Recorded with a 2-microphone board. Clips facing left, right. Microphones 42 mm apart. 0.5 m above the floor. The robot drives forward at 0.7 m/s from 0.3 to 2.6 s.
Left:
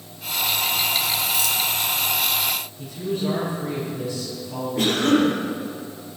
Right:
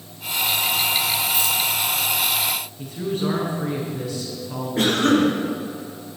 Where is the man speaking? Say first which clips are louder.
Right 2 dB; 75° right (ahead or behind), 7 m.